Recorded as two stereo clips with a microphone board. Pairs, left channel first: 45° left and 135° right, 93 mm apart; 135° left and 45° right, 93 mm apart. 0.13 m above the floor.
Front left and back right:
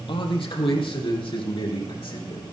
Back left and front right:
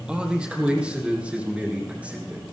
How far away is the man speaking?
About 3 m.